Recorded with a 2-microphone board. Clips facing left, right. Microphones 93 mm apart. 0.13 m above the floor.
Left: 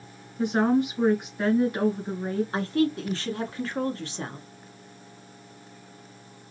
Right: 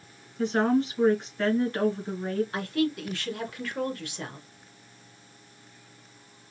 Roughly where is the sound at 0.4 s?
Centre.